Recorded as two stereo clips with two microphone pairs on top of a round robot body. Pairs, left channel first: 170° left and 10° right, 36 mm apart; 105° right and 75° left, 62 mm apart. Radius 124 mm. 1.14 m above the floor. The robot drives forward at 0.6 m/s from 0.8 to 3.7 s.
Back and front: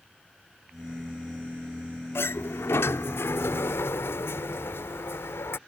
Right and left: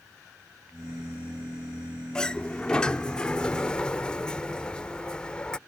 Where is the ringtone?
I don't hear a ringtone.